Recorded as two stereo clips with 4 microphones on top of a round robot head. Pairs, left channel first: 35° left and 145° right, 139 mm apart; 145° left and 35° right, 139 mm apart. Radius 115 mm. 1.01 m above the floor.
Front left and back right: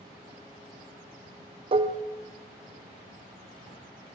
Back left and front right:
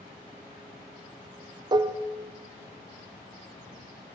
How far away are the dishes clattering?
About 0.5 m.